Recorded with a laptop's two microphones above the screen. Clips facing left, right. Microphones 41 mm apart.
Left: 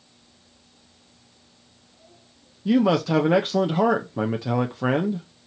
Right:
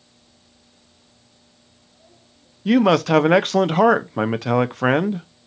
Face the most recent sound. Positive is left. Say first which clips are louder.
# right 4 dB
turn(degrees=-65)  # may be behind; listen again after turning